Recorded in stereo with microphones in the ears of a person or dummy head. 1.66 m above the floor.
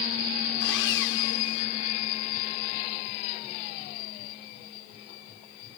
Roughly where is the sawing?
Left.